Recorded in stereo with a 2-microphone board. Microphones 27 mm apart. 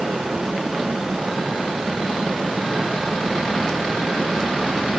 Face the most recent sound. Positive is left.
No sound to turn to.